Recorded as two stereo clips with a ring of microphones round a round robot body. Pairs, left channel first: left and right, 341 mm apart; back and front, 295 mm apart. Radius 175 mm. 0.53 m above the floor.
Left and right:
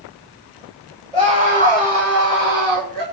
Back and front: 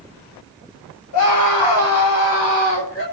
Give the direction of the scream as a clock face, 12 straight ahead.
5 o'clock.